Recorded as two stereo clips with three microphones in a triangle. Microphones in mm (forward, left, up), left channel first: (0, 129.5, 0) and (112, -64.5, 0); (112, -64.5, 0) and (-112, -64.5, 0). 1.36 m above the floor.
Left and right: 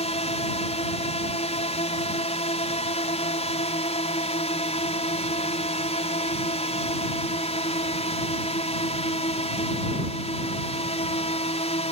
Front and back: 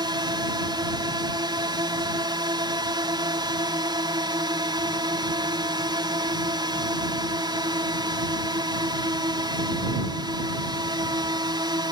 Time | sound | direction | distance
0.0 | a drone | 130° left | ?